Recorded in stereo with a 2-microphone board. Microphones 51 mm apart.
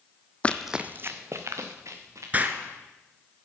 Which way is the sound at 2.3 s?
30° right (ahead or behind).